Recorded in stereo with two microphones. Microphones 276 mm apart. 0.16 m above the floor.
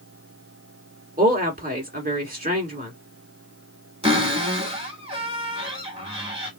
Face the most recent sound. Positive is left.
turn(degrees=-20)  # may be behind; listen again after turning